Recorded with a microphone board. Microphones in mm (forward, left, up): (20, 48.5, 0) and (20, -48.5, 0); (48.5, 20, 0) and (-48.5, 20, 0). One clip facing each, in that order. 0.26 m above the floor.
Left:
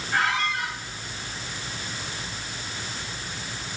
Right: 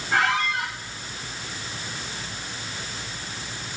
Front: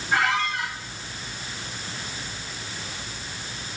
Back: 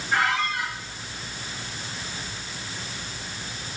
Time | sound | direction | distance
0.1 | a squeak | 75° right | 3.5 m